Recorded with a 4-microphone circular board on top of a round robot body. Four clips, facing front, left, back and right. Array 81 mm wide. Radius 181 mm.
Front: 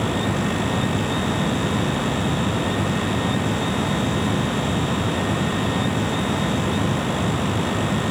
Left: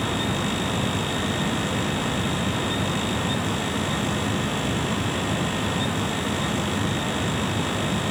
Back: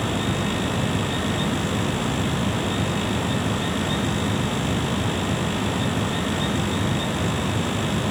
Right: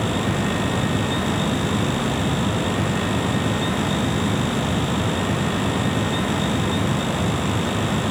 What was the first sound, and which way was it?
Only background noise.